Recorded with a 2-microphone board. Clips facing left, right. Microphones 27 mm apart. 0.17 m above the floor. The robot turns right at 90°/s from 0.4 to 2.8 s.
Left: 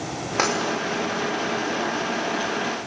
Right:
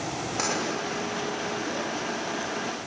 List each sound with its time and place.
0.4 s tapping: 40° left (ahead or behind), 8.5 m; by 0.5 s 50° left (ahead or behind), 8.5 m